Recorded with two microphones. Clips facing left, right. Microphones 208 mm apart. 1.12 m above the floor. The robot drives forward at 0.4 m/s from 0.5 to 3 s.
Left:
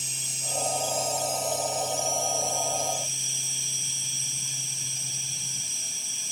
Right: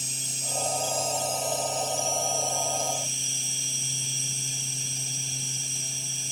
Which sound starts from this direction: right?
An insect, at 0.0 s.